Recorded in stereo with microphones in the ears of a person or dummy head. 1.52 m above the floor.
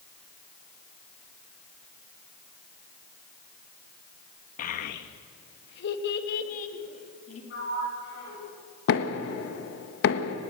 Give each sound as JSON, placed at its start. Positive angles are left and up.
{"t": 4.6, "sound": "a child speaking", "side_deg": 50, "distance_m": 1.5}
{"t": 7.5, "sound": "a sliding door", "side_deg": 70, "distance_m": 8.0}
{"t": 8.9, "sound": "knocking", "side_deg": 75, "distance_m": 1.4}